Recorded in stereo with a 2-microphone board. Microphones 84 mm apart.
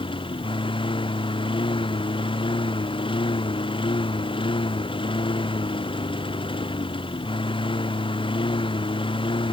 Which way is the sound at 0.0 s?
90° left.